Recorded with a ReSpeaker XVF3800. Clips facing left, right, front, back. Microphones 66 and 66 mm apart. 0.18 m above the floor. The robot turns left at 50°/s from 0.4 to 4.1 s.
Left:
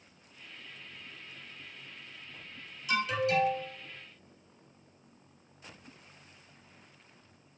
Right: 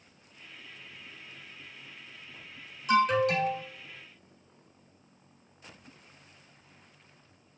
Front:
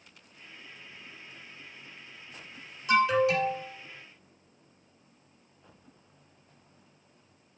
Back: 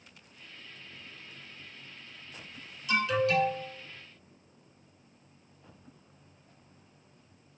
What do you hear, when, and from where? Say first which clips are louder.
2.9 s an alarm: right 5 dB, front 4 dB; 50° right, 1.3 m; by 3.6 s 90° right, 1.3 m